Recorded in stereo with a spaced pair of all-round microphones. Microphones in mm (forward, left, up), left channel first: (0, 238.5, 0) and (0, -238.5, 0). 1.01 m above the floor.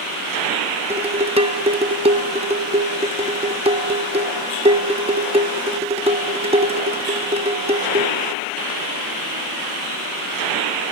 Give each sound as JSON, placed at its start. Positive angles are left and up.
{"t": 0.9, "sound": "dishes clattering", "side_deg": -10, "distance_m": 0.7}